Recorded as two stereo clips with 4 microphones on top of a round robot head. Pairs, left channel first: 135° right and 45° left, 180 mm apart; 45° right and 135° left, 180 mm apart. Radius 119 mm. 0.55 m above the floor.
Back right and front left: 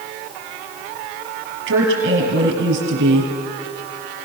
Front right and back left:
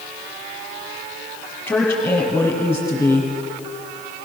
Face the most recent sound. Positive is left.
turn(degrees=40)